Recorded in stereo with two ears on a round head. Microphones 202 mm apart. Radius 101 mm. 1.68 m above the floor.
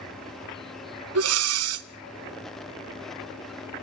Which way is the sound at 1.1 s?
80° right.